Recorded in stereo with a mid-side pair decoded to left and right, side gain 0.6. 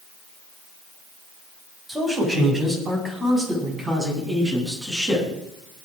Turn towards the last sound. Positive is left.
turn(degrees=-15)